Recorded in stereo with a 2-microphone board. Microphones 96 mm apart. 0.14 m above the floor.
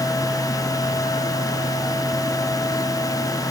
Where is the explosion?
No explosion in this recording.